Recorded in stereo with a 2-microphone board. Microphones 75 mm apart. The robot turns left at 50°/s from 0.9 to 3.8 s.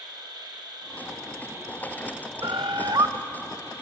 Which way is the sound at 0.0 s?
105° right.